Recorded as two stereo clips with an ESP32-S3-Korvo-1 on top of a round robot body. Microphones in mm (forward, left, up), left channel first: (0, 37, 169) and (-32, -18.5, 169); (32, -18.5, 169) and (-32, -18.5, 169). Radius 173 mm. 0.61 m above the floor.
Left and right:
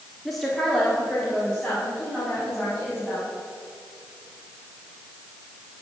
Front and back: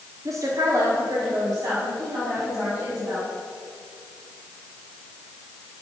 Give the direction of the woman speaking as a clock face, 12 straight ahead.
7 o'clock.